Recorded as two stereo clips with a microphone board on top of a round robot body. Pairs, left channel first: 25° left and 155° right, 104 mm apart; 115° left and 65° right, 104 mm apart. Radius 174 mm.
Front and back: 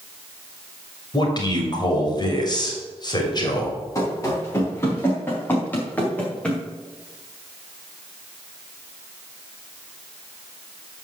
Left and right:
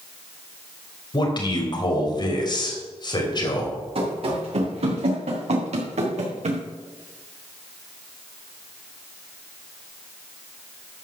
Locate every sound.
1.1 s a man speaking: 70° left, 3 m
4.0 s running footsteps: 40° right, 4.5 m; by 6.6 s 60° right, 3.5 m